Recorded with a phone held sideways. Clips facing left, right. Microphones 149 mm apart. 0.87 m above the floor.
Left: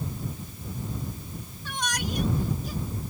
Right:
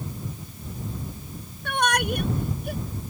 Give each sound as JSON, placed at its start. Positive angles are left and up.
{"t": 1.6, "sound": "a shout", "side_deg": -60}